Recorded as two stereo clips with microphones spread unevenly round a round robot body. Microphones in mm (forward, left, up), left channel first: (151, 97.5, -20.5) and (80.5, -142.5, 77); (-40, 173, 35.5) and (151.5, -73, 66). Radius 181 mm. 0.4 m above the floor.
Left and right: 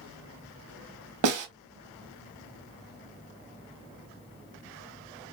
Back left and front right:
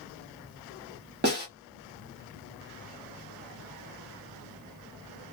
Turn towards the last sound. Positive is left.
turn(degrees=-115)